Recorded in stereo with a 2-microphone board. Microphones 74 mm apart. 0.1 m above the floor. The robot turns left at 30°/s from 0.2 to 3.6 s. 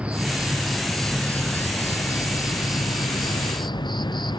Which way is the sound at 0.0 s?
165° right.